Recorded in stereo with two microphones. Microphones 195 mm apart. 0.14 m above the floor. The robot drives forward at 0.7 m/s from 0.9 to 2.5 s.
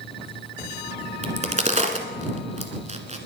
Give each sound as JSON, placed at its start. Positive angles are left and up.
{"t": 1.2, "sound": "a crack", "side_deg": -35, "distance_m": 1.7}